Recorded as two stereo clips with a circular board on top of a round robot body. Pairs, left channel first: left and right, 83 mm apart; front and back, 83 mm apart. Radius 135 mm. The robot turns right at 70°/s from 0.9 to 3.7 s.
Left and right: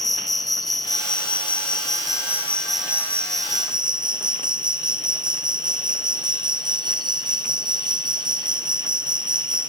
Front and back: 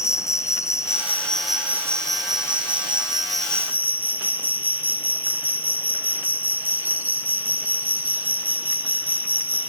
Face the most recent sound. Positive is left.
turn(degrees=-110)